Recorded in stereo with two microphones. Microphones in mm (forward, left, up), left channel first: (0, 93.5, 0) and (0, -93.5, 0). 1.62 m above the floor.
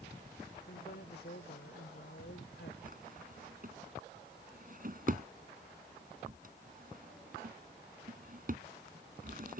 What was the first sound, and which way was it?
A woman speaking, 70° left (ahead or behind).